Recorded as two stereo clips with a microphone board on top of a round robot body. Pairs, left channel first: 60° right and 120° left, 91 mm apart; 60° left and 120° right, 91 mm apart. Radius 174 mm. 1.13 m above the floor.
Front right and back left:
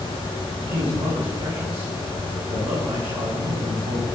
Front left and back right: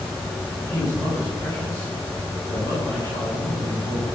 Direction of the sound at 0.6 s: 115° left.